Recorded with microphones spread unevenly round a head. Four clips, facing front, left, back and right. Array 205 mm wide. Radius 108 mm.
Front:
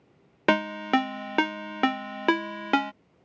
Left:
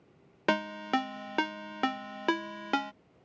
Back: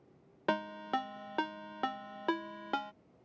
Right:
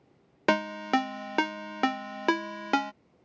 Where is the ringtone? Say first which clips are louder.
Right 3 dB, front 10 dB; 15° right.